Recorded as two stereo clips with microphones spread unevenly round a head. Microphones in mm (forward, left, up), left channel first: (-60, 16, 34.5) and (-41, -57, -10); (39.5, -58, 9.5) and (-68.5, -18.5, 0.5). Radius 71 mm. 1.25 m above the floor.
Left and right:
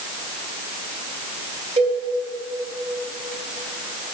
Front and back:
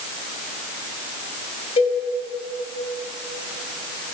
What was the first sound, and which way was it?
A cowbell, 50° right.